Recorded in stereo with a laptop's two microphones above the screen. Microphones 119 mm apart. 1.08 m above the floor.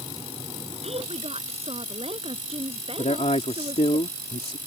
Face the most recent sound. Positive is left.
turn(degrees=65)  # may be behind; listen again after turning